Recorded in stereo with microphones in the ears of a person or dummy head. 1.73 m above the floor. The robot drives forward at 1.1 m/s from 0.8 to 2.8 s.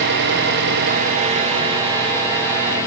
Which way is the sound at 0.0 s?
50° right (ahead or behind).